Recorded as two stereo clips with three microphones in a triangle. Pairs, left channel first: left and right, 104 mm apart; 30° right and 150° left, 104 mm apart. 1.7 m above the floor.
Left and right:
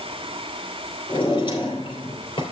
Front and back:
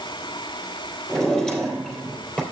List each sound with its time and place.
1.1 s a drawer: 50° left, 3 m